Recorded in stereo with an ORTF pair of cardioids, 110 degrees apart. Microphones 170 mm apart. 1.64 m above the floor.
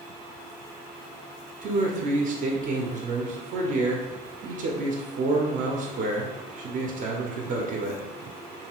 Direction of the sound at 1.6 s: 50° right.